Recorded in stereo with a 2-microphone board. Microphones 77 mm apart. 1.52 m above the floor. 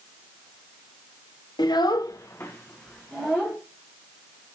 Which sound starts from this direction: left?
A child speaking, at 1.6 s.